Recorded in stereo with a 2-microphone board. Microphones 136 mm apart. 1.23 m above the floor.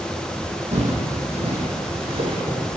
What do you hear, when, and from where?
0.7 s footsteps: 55° right (ahead or behind), 2 m; by 2.7 s 40° right (ahead or behind), 2.5 m